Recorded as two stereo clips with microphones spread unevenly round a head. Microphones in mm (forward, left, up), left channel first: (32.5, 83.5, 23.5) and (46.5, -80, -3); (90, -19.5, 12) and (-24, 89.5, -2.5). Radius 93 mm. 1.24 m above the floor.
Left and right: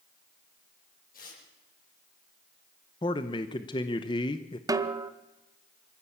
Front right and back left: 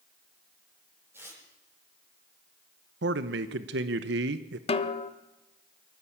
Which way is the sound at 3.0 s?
165° left.